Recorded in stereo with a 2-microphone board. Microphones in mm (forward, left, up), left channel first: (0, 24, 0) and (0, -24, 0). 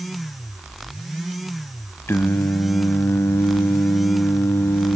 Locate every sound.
2.1 s singing: 65° left (ahead or behind), 0.7 m